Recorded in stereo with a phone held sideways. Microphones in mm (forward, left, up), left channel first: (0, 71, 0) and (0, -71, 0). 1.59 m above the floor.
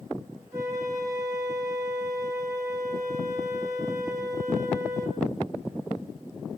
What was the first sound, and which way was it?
A flute, 20° right (ahead or behind).